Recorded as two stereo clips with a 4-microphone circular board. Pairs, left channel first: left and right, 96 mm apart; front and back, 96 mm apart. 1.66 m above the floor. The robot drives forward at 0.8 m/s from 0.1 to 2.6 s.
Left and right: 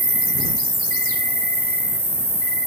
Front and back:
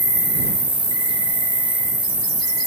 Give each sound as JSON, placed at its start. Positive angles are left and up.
{"t": 0.0, "sound": "an insect", "azimuth_deg": 160, "distance_m": 3.0}